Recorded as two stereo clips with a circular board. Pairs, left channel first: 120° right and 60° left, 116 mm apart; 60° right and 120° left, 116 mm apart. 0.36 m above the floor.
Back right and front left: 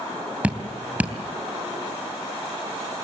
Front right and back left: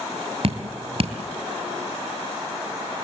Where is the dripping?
135° left, 2.5 m.